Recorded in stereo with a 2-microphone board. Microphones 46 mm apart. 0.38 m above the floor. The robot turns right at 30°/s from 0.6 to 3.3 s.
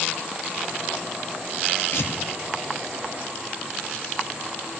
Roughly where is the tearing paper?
Left.